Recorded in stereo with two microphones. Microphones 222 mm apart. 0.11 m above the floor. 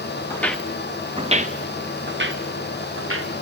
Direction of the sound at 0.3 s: 10° left (ahead or behind).